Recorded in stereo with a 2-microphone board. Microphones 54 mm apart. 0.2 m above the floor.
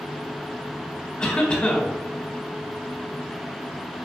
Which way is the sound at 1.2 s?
20° left (ahead or behind).